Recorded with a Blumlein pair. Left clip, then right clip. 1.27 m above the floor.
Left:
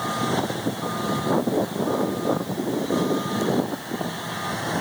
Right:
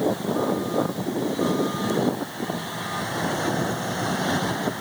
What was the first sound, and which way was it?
Only background noise.